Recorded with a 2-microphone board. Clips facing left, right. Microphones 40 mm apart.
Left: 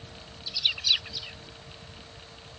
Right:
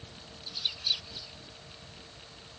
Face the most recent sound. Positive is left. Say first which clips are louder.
# left 7 dB
turn(degrees=70)  # may be behind; listen again after turning